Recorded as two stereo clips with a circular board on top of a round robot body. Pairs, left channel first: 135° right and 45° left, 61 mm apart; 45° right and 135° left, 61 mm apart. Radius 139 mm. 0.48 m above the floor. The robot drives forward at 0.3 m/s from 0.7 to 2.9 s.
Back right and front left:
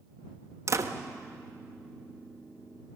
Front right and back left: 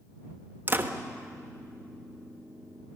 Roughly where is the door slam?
Left.